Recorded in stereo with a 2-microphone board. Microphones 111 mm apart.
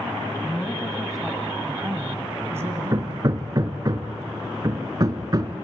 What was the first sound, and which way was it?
A woman speaking, 10° left (ahead or behind).